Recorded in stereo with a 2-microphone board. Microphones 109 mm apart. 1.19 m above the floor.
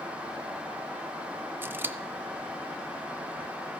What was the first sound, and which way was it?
Scissors, 20° right (ahead or behind).